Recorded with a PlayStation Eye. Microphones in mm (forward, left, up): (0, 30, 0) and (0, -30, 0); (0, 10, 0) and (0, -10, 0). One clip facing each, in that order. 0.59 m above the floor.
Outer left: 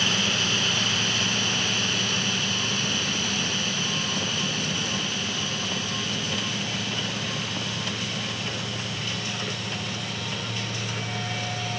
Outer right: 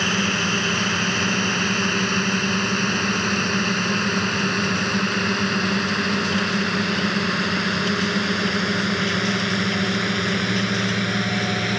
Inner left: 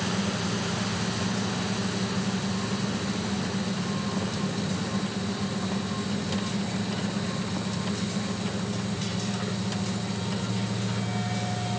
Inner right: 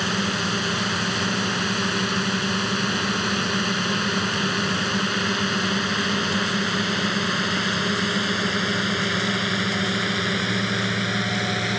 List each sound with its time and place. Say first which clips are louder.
0.0 s a drone: outer right 4 dB, inner right 5 dB; 35° right (ahead or behind); by 11.8 s 80° right